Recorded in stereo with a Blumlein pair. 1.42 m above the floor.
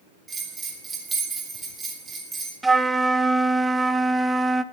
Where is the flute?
5° right, 0.6 m.